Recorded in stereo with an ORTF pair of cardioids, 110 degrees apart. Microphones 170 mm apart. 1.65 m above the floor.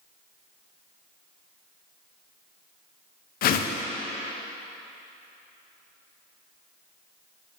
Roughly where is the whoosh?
Ahead left.